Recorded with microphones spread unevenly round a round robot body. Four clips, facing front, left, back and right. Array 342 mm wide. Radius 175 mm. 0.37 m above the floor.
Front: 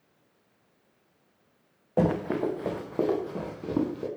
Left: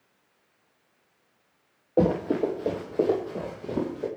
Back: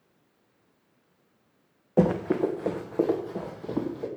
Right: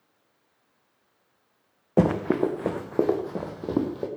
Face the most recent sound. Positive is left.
turn(degrees=-60)